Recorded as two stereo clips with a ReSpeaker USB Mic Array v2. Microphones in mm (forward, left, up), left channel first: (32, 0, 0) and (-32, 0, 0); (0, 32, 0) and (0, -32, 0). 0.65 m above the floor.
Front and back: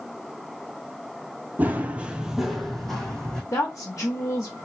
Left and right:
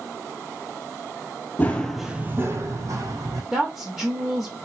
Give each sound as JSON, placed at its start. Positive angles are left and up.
{"t": 1.6, "sound": "running footsteps", "azimuth_deg": 135, "distance_m": 0.8}
{"t": 3.5, "sound": "a woman speaking", "azimuth_deg": -15, "distance_m": 1.1}